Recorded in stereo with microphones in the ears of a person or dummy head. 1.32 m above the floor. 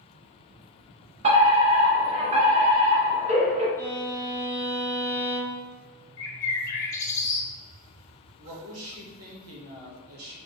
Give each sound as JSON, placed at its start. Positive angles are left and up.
{"t": 1.2, "sound": "a fire alarm", "side_deg": -30, "distance_m": 1.1}
{"t": 3.8, "sound": "a violin", "side_deg": 10, "distance_m": 0.9}
{"t": 6.2, "sound": "a bird", "side_deg": 20, "distance_m": 0.9}
{"t": 8.4, "sound": "a woman speaking", "side_deg": -75, "distance_m": 1.2}